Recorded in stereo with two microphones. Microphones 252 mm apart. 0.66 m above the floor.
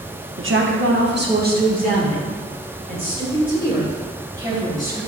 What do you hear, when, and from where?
0.4 s a woman speaking: 55° right (ahead or behind), 1.1 m; by 5.0 s 15° right (ahead or behind), 3.5 m